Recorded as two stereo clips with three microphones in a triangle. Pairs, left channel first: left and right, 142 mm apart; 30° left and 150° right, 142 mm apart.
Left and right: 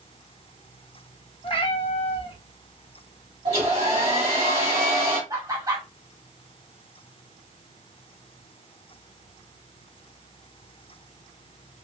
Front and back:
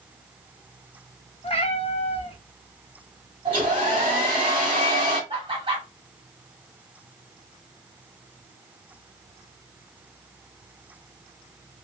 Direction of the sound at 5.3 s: 140° right.